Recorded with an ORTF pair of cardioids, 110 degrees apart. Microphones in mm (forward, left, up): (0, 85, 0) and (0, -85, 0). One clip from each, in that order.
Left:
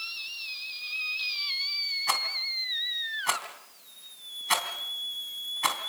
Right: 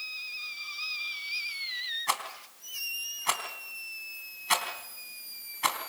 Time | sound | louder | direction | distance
2.1 | a rattle | left 5 dB | straight ahead | 3 m